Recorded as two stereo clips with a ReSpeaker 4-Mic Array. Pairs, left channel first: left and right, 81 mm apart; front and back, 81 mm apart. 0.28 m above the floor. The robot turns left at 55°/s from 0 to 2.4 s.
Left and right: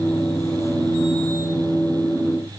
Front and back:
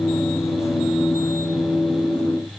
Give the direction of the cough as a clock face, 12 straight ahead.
No cough in this recording.